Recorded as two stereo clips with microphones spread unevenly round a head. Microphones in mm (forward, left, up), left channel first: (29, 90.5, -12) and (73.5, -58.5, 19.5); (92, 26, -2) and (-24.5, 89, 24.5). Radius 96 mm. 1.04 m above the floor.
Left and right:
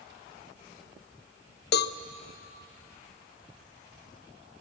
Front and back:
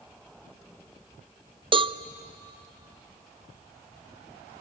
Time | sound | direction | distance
1.7 | a cowbell | 90° left | 0.5 m